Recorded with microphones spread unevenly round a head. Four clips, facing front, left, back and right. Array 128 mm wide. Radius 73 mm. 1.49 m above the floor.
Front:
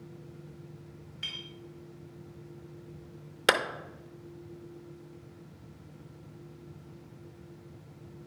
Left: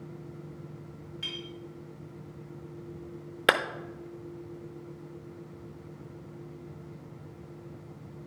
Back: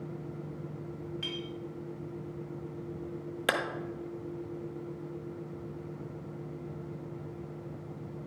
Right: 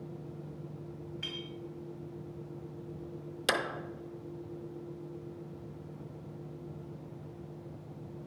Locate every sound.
1.2 s a clink: 165° left, 2.0 m
3.5 s a clap: 75° left, 0.7 m